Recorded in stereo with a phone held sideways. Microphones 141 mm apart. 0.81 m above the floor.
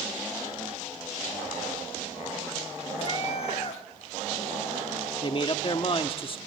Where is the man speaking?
40° left (ahead or behind), 1.2 m.